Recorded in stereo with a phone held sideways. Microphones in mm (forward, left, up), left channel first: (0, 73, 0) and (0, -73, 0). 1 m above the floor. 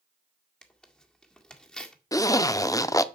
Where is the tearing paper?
5° left (ahead or behind), 1.8 m.